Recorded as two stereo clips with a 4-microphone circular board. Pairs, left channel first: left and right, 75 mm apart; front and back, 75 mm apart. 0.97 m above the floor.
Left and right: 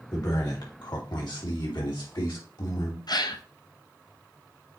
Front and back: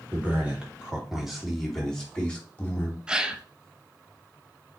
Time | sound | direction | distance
0.1 | a man speaking | 115° left | 3 m
3.1 | a gasp | 105° left | 0.7 m